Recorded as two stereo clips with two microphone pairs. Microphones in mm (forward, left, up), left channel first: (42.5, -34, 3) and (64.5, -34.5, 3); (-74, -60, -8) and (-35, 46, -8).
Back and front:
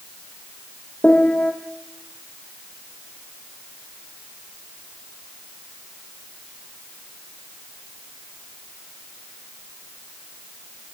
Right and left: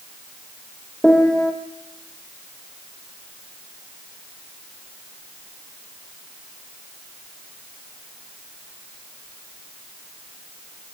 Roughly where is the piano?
Behind.